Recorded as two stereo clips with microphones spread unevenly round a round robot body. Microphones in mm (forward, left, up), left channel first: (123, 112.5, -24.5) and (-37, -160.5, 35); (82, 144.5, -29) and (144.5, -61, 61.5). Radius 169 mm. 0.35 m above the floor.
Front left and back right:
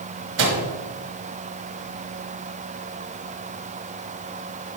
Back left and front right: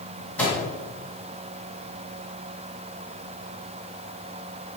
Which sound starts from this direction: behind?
A microwave, at 0.4 s.